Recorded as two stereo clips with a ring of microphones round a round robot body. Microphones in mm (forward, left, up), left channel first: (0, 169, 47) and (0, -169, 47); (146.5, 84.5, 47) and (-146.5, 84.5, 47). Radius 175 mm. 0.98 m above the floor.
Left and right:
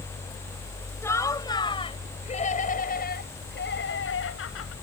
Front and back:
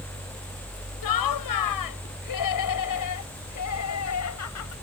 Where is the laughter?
5° left; by 4.7 s 35° left.